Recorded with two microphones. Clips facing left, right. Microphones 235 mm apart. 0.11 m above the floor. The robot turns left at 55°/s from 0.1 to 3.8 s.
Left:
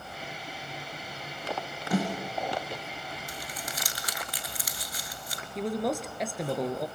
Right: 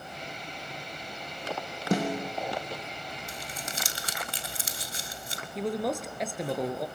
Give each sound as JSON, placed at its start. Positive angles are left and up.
{"t": 1.9, "sound": "a snare drum", "side_deg": -45, "distance_m": 5.5}
{"t": 3.3, "sound": "crumpling", "side_deg": -25, "distance_m": 1.4}
{"t": 5.5, "sound": "a man speaking", "side_deg": 0, "distance_m": 1.8}